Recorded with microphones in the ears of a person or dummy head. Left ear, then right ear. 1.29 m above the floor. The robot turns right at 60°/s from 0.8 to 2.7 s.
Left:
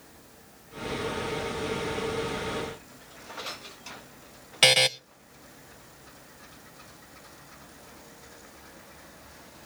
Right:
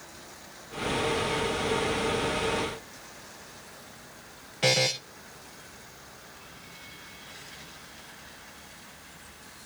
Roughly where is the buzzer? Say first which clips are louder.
Left 5 dB; left.